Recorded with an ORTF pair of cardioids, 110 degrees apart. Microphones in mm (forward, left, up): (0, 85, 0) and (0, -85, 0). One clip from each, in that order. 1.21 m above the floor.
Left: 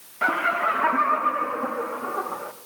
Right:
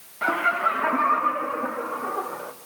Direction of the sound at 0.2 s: 15° left.